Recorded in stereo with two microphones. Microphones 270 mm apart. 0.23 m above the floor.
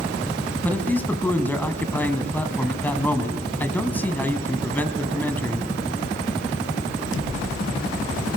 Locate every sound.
0.6 s a man speaking: 5° left (ahead or behind), 1.6 m